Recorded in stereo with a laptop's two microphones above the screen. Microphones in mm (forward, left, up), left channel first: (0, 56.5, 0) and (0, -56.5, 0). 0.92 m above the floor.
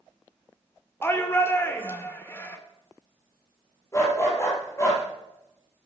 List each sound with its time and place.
1.0 s a shout: 20° left (ahead or behind), 2.5 m
3.9 s a dog barking: 25° left (ahead or behind), 6.5 m